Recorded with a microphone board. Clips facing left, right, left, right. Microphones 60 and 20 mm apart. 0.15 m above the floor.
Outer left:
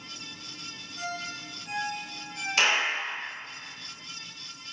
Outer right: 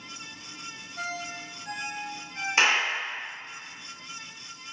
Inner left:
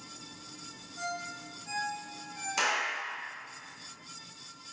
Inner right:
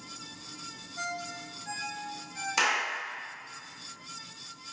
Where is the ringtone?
40° right (ahead or behind), 1.1 m.